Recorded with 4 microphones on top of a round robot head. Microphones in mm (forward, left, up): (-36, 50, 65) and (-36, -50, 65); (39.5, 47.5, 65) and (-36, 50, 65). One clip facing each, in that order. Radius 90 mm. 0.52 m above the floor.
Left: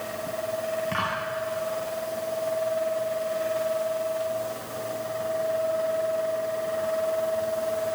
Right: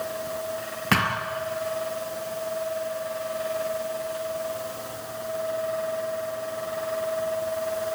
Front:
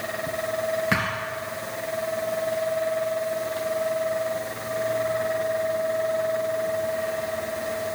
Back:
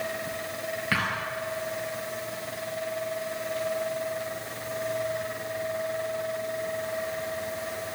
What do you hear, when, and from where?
0.9 s a thud: 75° right, 3 m